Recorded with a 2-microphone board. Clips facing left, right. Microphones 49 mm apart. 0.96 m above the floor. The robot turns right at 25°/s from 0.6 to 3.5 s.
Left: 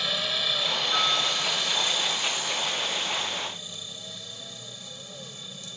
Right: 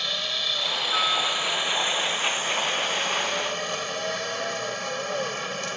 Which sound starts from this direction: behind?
A helicopter, at 0.0 s.